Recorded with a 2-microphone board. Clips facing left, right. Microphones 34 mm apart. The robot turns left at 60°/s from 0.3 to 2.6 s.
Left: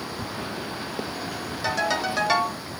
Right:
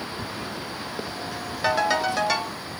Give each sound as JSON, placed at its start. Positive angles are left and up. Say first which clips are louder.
{"t": 1.6, "sound": "a ringtone", "louder": "right 3 dB", "azimuth_deg": -145, "distance_m": 1.0}